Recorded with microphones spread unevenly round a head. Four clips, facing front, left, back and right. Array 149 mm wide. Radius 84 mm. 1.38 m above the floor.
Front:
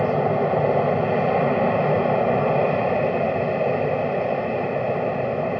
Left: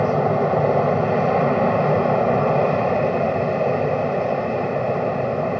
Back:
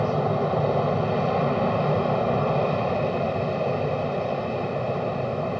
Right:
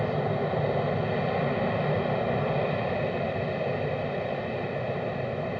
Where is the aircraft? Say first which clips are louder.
Left 9 dB, front 3 dB; 45° left.